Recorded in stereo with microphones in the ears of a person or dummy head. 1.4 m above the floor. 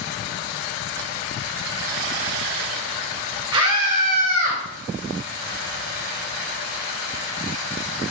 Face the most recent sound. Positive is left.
turn(degrees=-40)  # may be behind; listen again after turning